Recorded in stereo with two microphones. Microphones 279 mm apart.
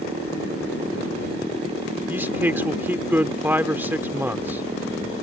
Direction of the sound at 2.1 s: 10° right (ahead or behind).